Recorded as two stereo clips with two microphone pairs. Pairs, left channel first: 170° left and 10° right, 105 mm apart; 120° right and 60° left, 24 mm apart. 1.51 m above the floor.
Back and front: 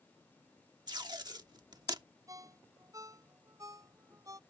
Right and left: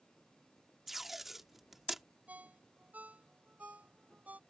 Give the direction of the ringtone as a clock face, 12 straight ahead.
10 o'clock.